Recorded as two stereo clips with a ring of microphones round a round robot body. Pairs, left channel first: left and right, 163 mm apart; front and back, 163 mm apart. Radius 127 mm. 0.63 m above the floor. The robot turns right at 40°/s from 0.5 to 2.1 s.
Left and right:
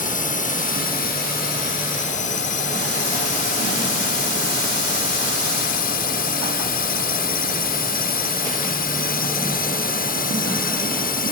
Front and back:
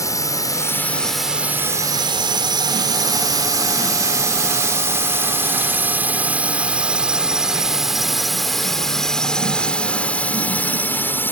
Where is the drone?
65° left; by 11.3 s 75° left.